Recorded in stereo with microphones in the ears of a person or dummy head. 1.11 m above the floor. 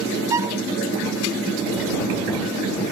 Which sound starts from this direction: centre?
A violin, at 0.3 s.